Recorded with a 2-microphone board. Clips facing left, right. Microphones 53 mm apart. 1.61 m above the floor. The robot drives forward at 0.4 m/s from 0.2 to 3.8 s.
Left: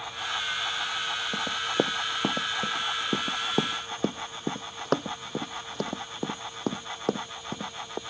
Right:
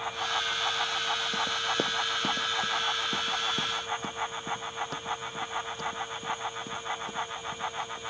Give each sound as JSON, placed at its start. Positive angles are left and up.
{"t": 1.3, "sound": "running footsteps", "side_deg": 15}